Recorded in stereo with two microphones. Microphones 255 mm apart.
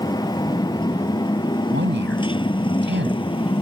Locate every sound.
0.0 s a motorcycle: 15° left (ahead or behind); by 3.6 s 20° left (ahead or behind)
1.7 s a man speaking: 45° right (ahead or behind)